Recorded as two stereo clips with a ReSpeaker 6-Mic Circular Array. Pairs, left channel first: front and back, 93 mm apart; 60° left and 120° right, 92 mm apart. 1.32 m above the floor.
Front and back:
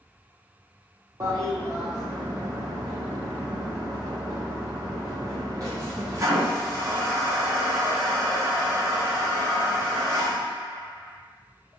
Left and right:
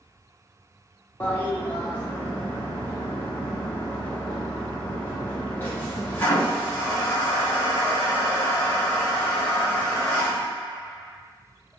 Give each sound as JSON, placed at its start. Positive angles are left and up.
{"t": 1.2, "sound": "a toilet flushing", "azimuth_deg": 130, "distance_m": 0.7}